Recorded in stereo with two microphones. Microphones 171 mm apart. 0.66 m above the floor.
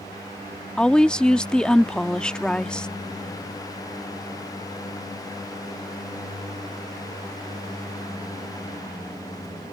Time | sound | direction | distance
0.8 | a woman speaking | 5° left (ahead or behind) | ?